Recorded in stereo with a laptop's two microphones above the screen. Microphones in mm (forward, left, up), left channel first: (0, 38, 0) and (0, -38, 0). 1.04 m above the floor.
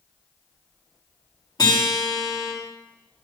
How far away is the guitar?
About 2.5 m.